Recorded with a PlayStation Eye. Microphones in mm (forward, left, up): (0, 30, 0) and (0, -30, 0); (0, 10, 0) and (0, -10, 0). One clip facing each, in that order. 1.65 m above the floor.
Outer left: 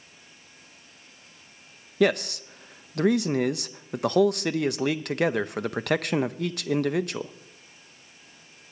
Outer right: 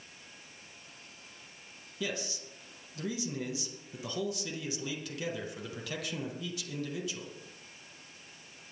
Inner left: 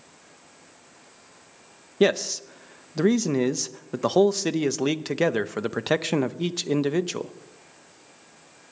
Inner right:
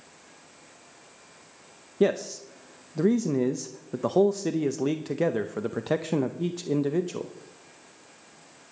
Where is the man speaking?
65° left (ahead or behind), 0.6 m.